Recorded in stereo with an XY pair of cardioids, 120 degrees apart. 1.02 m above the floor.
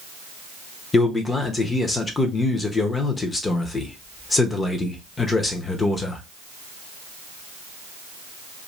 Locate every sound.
0.9 s a man speaking: 25° left, 0.8 m